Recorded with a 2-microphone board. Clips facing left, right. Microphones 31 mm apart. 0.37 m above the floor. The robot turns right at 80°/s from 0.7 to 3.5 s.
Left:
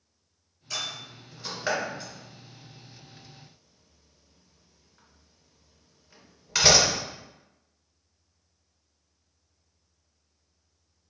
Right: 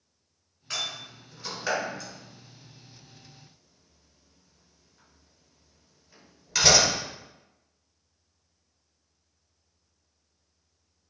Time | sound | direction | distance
0.7 | a door slam | 45° right (ahead or behind) | 1.4 m